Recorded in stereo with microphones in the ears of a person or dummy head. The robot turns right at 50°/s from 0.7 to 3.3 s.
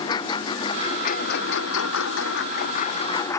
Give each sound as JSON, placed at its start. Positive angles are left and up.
{"t": 0.0, "sound": "a lawn mower", "side_deg": 25}